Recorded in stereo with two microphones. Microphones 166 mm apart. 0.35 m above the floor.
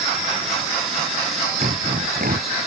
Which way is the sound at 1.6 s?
60° right (ahead or behind).